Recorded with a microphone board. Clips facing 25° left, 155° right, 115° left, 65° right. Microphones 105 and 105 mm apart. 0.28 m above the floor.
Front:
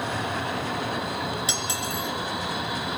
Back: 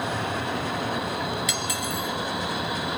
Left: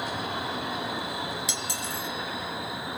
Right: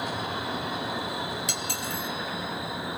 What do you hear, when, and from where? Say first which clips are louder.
1.5 s cutlery clinking: back 1 dB, right 1 dB; 35° right, 3 m